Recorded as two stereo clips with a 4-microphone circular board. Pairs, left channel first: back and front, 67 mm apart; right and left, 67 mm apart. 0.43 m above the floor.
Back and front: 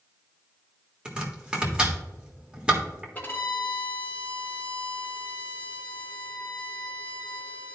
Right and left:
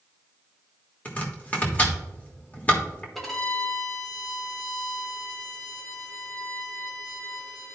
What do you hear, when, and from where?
1.1 s chopping: 55° right, 1.5 m
3.1 s a violin: 175° right, 1.4 m